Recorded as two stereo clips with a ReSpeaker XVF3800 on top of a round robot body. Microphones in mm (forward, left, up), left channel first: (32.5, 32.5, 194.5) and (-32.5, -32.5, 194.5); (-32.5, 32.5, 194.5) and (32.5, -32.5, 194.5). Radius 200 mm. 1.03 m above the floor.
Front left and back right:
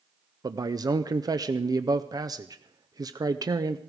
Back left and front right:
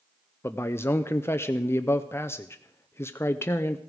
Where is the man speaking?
170° right, 0.7 m.